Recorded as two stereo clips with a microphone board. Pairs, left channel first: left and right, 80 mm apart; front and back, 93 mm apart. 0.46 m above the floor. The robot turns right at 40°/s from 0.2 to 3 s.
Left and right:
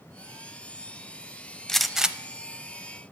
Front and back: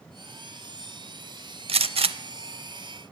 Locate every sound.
1.7 s a gunshot: 175° left, 0.6 m; by 2.2 s 165° right, 0.6 m